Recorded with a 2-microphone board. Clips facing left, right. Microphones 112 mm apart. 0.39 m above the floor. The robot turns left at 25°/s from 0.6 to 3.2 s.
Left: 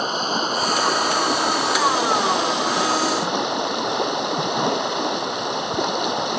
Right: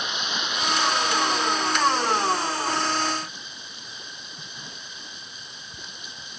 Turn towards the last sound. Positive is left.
turn(degrees=75)